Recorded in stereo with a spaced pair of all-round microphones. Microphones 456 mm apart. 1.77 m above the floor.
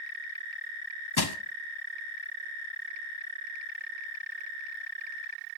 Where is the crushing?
55° left (ahead or behind), 0.7 m.